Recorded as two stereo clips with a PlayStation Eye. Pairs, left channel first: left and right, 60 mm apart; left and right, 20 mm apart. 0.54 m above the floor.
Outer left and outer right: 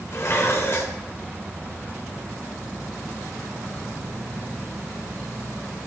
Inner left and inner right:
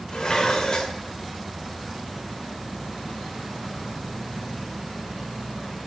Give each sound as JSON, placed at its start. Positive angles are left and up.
{"t": 0.1, "sound": "dishes clattering", "side_deg": 50, "distance_m": 1.1}